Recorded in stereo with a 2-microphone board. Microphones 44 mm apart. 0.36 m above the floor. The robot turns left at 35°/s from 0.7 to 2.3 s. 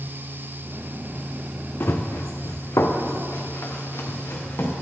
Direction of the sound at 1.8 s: 55° left (ahead or behind).